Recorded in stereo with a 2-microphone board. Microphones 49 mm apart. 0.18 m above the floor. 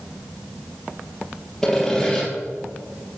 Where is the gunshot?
I don't hear a gunshot.